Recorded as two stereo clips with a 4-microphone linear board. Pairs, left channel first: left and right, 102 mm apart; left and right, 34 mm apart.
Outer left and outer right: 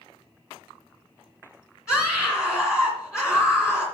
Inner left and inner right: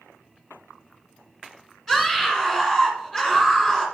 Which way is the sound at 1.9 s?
10° right (ahead or behind).